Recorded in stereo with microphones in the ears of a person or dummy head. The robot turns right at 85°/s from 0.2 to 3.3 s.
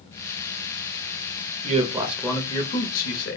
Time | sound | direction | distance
1.6 | a man speaking | 50° right | 0.6 m